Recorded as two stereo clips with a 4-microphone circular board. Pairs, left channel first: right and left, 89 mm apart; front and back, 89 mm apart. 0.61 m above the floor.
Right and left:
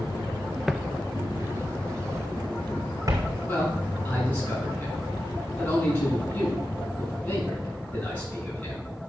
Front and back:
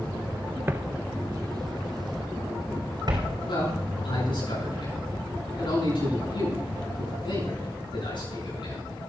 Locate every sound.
0.7 s footsteps: 175° left, 0.6 m; by 3.4 s 140° left, 3 m
3.5 s a man speaking: 20° right, 8 m